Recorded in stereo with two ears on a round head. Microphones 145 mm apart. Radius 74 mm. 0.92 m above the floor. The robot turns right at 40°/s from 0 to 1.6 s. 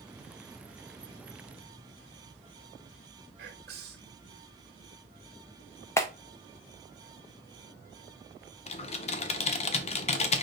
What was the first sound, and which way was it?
Whispering, 65° right (ahead or behind).